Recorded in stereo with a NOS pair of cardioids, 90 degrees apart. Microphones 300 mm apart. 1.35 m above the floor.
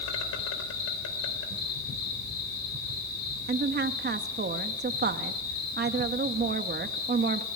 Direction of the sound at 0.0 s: 55° left.